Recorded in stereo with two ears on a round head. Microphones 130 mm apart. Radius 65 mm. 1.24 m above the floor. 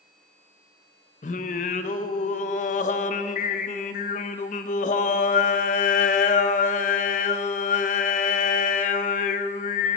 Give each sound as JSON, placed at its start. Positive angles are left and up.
{"t": 1.2, "sound": "singing", "side_deg": 55, "distance_m": 0.6}